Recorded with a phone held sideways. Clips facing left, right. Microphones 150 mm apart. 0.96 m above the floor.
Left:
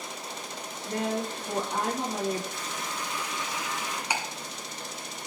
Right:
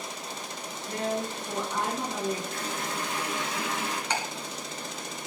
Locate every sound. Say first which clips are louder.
0.8 s a woman speaking: left 1 dB; 35° left (ahead or behind), 8 m
2.5 s a running tap: right 3 dB; 55° right (ahead or behind), 7.5 m
4.1 s ticking: even; 10° left (ahead or behind), 3 m